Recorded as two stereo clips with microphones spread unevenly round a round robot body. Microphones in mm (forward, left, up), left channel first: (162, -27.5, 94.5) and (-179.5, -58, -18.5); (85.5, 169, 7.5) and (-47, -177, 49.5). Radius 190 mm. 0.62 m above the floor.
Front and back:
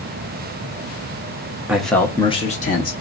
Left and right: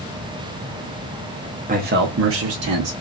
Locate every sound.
1.7 s a man speaking: 165° right, 0.7 m; by 2.9 s 70° right, 0.9 m